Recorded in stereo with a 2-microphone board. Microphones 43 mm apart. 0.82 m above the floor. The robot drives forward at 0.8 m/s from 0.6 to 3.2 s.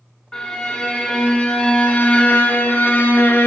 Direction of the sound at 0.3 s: 20° left (ahead or behind).